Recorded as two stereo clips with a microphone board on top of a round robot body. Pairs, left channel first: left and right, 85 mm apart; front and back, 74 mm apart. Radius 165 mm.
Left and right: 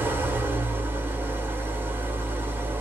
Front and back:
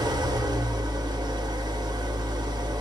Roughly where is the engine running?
Behind right.